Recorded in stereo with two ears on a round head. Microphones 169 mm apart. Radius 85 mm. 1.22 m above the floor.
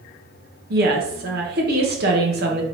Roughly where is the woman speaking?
Right.